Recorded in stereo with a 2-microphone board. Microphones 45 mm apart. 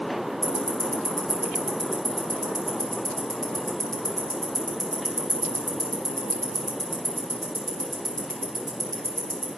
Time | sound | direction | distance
0.4 | ticking | 5° left (ahead or behind) | 4 m